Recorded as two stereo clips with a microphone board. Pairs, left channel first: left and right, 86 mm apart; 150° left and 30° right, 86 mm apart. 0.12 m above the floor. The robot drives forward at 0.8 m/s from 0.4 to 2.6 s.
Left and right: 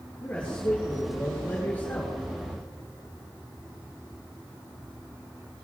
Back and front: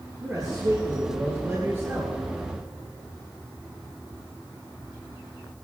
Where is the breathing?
No breathing in this recording.